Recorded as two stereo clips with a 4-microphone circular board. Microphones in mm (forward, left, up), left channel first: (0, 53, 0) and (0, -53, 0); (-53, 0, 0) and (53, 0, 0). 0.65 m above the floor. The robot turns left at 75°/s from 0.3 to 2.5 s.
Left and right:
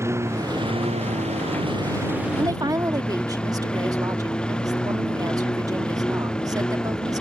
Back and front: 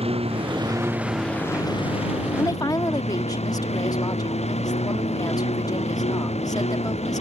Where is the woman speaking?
125° right; by 7.2 s 135° right.